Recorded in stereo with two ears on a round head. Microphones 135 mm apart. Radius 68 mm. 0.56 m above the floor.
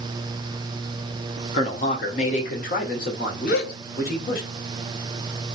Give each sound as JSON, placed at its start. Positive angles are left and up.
{"t": 1.5, "sound": "a man speaking", "side_deg": 40, "distance_m": 1.6}
{"t": 3.5, "sound": "a gasp", "side_deg": 70, "distance_m": 1.1}